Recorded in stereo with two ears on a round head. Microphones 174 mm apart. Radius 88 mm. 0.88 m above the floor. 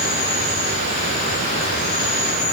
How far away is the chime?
No chime in this recording.